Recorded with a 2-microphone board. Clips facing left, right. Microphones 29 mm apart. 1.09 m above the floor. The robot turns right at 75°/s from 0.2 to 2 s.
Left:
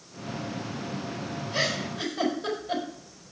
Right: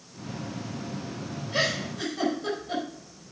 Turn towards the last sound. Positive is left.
turn(degrees=15)  # may be behind; listen again after turning